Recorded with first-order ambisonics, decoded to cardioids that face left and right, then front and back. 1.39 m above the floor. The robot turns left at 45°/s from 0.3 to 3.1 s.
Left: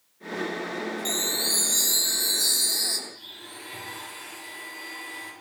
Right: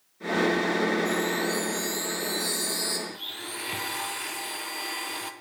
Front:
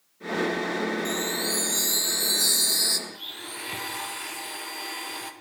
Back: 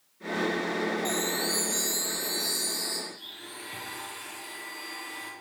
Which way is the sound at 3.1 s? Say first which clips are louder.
Right 6 dB, front 5 dB; 55° right.